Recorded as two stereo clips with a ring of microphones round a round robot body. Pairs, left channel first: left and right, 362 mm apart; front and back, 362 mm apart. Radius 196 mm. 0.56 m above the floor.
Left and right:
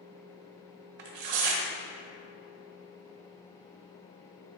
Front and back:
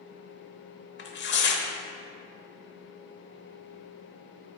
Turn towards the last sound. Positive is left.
turn(degrees=-60)